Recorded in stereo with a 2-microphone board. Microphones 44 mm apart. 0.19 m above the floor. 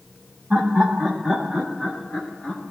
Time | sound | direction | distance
0.5 | laughter | 30° right (ahead or behind) | 1.4 m